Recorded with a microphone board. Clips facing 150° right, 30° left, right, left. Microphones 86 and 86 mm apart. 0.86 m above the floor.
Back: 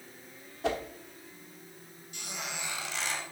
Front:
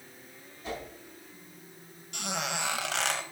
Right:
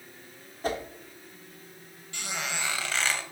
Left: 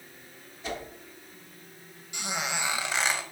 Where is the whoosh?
135° right, 1.4 m.